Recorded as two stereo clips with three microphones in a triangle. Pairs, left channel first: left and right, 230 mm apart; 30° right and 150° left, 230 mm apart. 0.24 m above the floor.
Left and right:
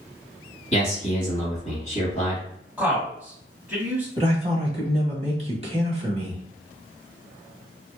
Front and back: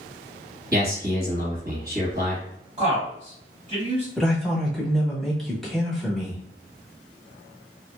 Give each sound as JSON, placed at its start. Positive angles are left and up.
{"t": 0.7, "sound": "a man speaking", "azimuth_deg": 135, "distance_m": 1.3}
{"t": 2.8, "sound": "a man speaking", "azimuth_deg": -170, "distance_m": 1.6}
{"t": 4.2, "sound": "a man speaking", "azimuth_deg": -115, "distance_m": 1.0}